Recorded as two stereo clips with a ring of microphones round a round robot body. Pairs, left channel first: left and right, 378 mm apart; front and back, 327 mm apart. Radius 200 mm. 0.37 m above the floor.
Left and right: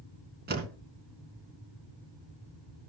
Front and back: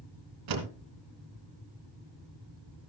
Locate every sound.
0.5 s a door slam: 155° right, 3 m